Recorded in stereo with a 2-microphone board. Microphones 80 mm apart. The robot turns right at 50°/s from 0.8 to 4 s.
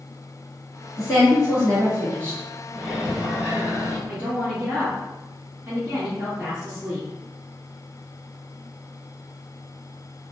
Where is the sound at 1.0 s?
85° left, 1.4 m; by 2.4 s 160° left, 1.4 m.